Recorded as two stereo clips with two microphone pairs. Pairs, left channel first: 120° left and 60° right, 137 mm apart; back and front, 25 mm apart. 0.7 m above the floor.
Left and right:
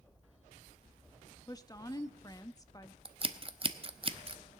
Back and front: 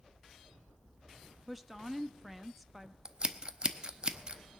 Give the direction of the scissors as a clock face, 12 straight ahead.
1 o'clock.